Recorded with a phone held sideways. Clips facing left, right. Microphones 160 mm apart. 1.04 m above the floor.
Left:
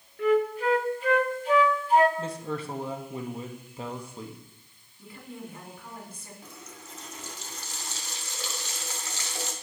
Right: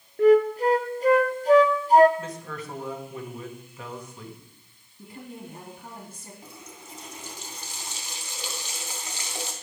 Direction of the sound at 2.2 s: 30° left (ahead or behind).